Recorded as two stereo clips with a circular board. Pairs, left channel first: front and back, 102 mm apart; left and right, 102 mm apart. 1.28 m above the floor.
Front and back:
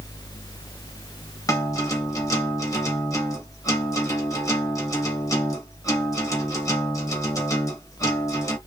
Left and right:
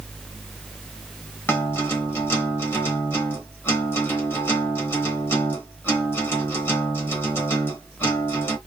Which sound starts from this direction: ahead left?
A guitar, at 1.5 s.